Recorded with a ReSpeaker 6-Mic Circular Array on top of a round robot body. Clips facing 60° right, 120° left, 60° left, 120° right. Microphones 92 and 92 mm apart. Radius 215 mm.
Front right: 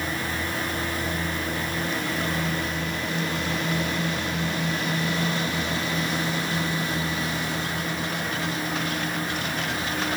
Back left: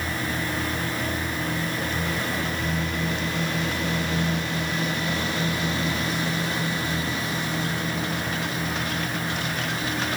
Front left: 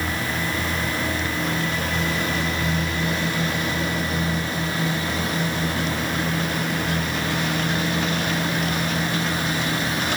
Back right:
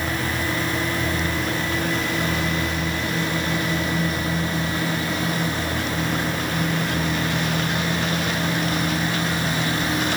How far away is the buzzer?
No buzzer in this recording.